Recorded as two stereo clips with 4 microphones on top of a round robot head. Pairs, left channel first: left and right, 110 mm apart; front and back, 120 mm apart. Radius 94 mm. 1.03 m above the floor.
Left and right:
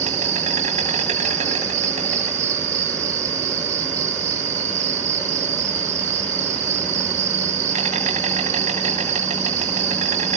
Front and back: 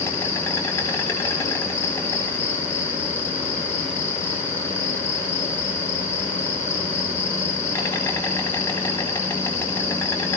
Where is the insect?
75° right, 3.5 m.